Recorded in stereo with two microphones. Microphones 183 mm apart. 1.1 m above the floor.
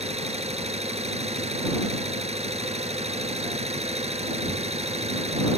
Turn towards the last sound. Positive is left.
turn(degrees=-35)  # may be behind; listen again after turning